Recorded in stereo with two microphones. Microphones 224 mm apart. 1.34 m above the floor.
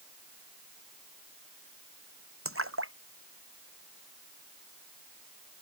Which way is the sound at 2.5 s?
75° right (ahead or behind).